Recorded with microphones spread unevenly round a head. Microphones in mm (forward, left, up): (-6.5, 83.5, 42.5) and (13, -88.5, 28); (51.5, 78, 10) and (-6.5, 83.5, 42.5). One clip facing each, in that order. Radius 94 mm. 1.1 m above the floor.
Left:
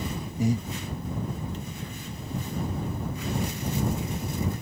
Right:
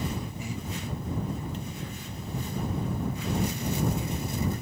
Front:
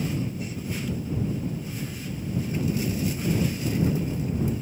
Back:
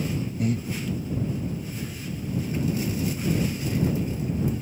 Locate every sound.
0.4 s breathing: 145° left